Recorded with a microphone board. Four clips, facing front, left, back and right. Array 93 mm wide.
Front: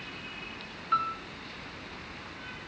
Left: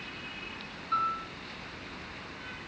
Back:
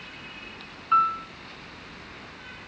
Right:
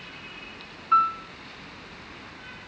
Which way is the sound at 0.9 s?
145° right.